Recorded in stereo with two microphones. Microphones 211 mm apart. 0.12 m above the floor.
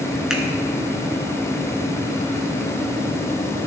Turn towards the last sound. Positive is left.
turn(degrees=-5)  # may be behind; listen again after turning